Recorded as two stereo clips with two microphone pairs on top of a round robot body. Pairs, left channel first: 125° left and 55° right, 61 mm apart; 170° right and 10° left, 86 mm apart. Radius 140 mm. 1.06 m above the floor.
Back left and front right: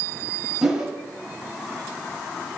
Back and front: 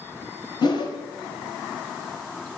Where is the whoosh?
140° right, 1.0 m.